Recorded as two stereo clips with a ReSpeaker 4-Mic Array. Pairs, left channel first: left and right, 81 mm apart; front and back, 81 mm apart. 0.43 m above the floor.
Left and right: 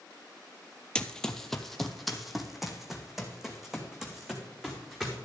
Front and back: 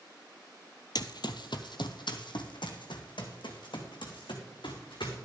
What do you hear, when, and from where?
0.9 s running footsteps: 15° left, 0.7 m; by 5.2 s 10° right, 3 m